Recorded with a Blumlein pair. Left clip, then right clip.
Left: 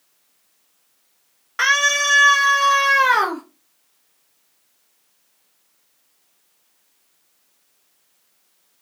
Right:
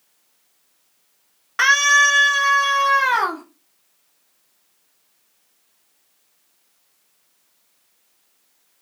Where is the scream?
5° right, 1.2 m; by 3.4 s 50° left, 2 m.